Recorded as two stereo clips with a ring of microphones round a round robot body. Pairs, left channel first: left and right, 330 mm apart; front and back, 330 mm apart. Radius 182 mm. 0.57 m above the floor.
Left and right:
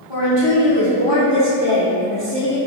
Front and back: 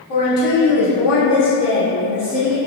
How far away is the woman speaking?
About 1.8 m.